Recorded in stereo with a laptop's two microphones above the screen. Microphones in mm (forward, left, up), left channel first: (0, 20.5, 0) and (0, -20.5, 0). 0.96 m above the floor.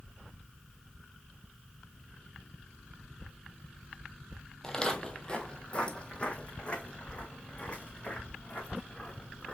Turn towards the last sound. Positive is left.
turn(degrees=30)  # may be behind; listen again after turning